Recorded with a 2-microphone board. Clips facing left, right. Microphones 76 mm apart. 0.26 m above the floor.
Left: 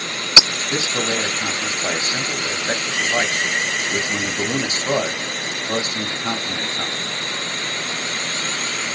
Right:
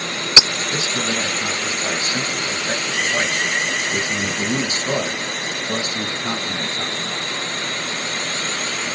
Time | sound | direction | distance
0.7 | a man speaking | 30° left (ahead or behind) | 1.2 m